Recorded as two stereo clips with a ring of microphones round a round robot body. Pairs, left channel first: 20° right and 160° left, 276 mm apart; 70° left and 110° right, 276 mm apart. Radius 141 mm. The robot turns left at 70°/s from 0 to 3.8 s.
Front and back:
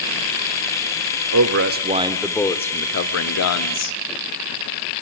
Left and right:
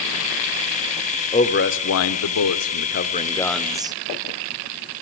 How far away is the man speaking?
About 1.5 m.